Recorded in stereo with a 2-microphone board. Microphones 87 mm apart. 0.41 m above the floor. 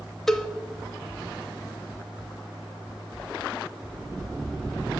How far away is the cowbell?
About 0.9 m.